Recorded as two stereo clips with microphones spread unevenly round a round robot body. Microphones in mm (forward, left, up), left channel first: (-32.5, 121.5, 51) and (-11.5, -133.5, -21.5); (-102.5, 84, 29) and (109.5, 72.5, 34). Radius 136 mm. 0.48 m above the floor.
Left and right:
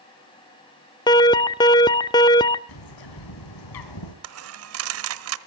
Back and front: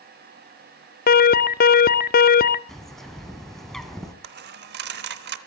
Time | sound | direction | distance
1.1 | an alarm | straight behind | 0.6 m
2.7 | a bird | 90° left | 3 m
4.2 | a dropped coin | 55° right | 0.8 m